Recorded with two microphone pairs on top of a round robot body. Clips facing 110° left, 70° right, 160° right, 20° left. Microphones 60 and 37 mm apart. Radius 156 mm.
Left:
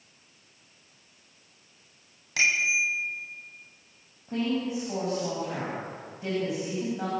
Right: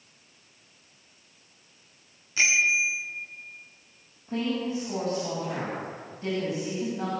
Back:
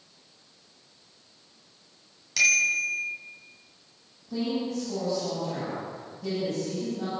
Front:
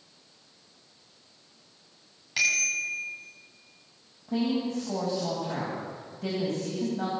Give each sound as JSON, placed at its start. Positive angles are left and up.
{"t": 2.4, "sound": "a bicycle bell", "azimuth_deg": 90, "distance_m": 7.0}
{"t": 4.3, "sound": "a woman speaking", "azimuth_deg": 30, "distance_m": 9.0}